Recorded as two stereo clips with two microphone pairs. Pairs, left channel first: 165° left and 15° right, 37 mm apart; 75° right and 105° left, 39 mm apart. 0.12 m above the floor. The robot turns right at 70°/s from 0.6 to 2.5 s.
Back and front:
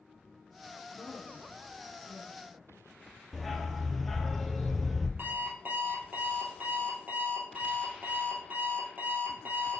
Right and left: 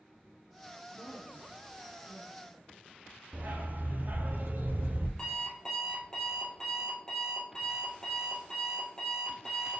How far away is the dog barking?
About 1.0 m.